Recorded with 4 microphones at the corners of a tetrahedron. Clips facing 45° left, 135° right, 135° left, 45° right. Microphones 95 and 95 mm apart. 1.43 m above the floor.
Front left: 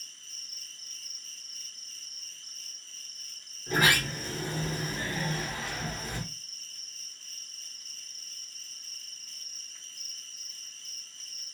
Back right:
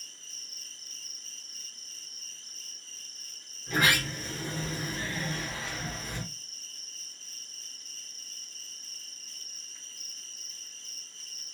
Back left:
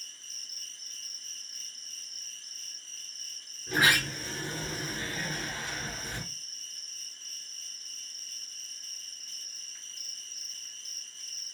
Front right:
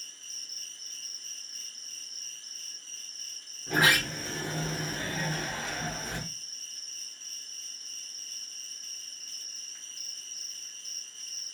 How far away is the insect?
About 2 m.